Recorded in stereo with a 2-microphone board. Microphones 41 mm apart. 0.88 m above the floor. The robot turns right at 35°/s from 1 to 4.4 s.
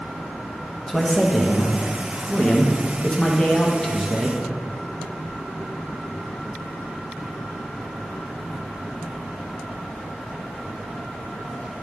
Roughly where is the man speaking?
Centre.